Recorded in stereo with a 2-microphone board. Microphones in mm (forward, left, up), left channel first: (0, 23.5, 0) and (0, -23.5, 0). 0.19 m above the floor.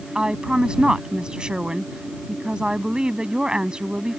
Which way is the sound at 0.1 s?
20° right (ahead or behind).